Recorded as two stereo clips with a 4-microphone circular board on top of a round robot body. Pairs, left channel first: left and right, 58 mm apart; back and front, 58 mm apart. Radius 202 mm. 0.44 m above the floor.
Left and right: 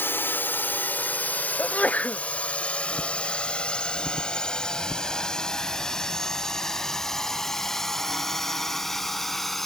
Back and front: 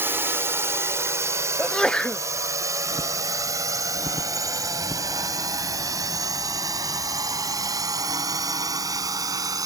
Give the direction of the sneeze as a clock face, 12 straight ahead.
8 o'clock.